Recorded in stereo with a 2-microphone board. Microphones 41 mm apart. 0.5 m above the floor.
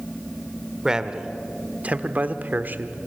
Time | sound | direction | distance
0.8 | a man speaking | 15° right (ahead or behind) | 1.5 m